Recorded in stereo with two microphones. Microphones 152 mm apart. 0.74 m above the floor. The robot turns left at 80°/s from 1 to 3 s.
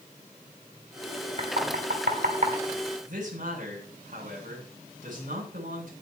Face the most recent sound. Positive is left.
turn(degrees=-60)  # may be behind; listen again after turning